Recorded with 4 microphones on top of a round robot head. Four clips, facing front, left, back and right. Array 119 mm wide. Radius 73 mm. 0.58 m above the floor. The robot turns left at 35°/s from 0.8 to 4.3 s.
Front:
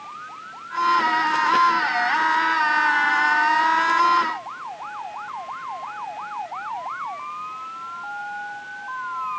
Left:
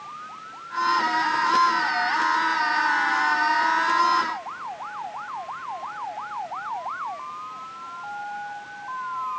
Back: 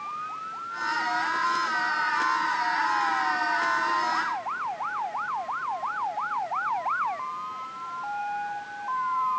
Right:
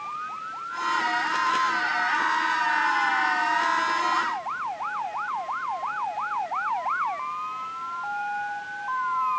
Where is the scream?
No scream in this recording.